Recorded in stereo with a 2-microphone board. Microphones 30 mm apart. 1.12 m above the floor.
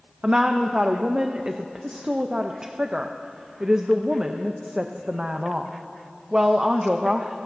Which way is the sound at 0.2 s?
30° right (ahead or behind).